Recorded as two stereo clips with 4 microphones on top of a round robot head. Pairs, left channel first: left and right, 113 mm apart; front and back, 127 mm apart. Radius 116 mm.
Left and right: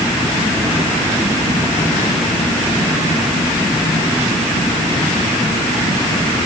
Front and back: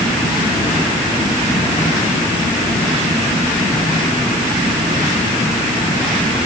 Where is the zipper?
No zipper in this recording.